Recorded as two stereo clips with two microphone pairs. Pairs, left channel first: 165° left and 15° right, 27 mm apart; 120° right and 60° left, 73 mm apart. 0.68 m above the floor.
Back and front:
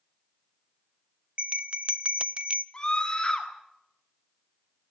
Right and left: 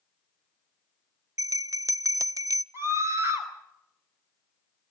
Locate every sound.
1.4 s a bell: 30° left, 0.5 m
2.7 s a scream: 105° left, 4.5 m